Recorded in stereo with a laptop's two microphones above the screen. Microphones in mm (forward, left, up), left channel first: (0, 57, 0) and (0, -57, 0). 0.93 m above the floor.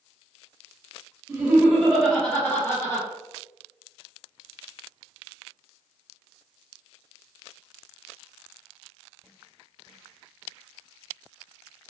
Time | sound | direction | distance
1.3 | laughter | 20° right (ahead or behind) | 1.2 m